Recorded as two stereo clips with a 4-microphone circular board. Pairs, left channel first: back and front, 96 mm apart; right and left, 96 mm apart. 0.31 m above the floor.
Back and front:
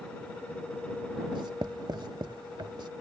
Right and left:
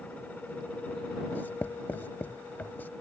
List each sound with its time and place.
1.3 s writing: 25° right